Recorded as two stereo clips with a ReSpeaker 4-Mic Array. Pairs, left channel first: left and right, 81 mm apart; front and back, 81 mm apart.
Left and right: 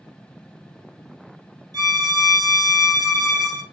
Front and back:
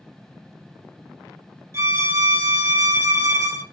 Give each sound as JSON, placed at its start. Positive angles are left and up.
{"t": 1.7, "sound": "a violin", "azimuth_deg": -130, "distance_m": 1.8}